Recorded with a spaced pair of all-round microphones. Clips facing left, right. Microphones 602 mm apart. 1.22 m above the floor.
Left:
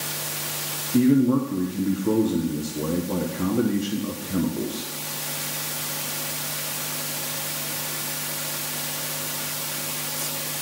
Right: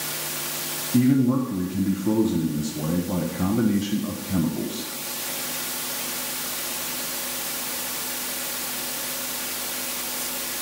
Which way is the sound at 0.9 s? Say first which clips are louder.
Left 1 dB; 20° right (ahead or behind).